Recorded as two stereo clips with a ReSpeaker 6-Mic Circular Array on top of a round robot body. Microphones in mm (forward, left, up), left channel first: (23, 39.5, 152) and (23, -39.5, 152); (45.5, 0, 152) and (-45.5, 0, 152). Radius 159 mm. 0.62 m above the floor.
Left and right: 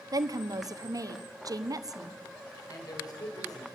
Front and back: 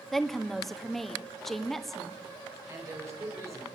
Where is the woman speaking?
85° right, 1.7 m.